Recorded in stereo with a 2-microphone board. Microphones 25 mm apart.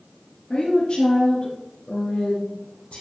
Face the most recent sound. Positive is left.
turn(degrees=65)  # may be behind; listen again after turning